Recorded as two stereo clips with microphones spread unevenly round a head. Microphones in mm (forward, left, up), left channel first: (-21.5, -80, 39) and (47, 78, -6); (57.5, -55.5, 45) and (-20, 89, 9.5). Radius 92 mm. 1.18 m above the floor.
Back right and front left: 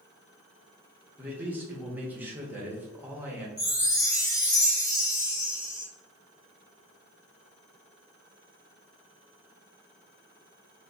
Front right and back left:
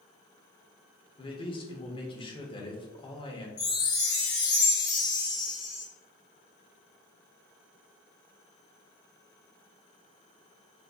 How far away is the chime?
About 1.6 m.